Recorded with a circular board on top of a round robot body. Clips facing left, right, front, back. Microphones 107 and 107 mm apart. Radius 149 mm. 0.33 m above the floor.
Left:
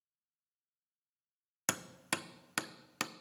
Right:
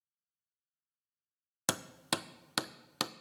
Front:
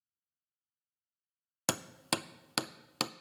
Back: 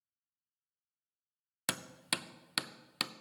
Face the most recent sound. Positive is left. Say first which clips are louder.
# right 3 dB, front 6 dB
turn(degrees=-30)